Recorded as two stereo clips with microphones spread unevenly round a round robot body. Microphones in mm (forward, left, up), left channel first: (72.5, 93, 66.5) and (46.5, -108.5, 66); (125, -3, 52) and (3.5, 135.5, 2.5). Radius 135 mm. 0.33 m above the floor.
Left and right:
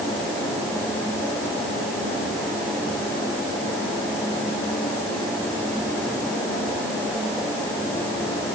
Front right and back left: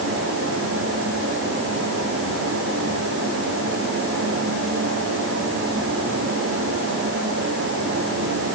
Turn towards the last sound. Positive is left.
No sound to turn to.